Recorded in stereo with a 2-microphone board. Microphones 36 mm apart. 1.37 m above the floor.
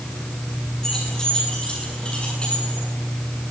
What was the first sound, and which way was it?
Keys jangling, 15° left (ahead or behind).